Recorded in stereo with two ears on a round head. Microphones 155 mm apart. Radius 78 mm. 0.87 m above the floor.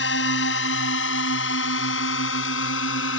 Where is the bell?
I don't hear a bell.